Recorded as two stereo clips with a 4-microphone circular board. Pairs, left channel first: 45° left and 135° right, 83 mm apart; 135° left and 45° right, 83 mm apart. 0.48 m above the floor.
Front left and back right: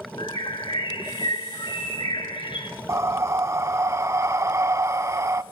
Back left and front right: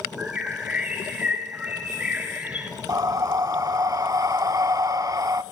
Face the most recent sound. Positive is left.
turn(degrees=-85)